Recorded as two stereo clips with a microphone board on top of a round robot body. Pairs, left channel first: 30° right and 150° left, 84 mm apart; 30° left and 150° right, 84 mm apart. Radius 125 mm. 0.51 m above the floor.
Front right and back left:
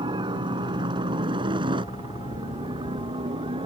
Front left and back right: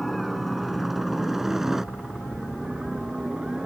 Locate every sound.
0.0 s a helicopter: 120° left; by 3.7 s 130° left